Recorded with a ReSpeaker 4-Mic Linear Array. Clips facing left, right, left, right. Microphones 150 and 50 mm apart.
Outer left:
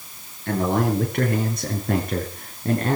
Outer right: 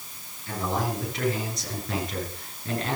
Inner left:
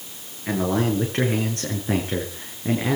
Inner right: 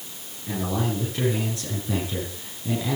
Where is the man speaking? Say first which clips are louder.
Outer left 7 dB, inner left 5 dB; 60° left (ahead or behind), 7 m; by 3.0 s 45° left (ahead or behind), 6 m.